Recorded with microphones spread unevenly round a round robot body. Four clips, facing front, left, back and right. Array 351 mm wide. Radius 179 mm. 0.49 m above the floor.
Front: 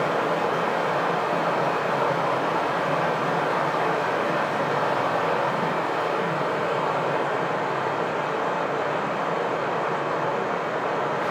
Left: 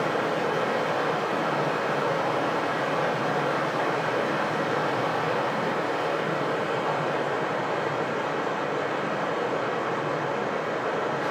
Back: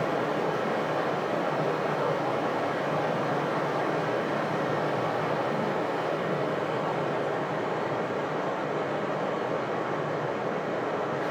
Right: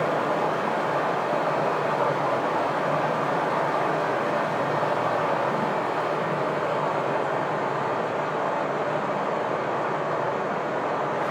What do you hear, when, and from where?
0.0 s running water: 100° right, 1.0 m